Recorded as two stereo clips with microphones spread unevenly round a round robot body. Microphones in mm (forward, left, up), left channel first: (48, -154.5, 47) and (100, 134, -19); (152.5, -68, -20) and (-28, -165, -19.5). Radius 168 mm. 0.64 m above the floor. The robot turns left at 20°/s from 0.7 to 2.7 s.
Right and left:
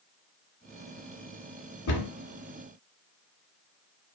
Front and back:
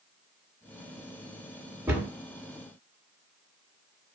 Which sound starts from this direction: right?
A cupboard door, at 1.9 s.